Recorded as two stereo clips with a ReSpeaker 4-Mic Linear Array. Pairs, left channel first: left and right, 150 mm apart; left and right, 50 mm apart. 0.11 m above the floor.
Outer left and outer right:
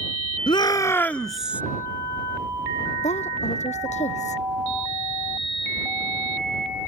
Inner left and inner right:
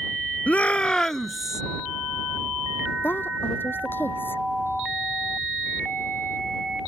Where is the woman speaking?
50° left (ahead or behind).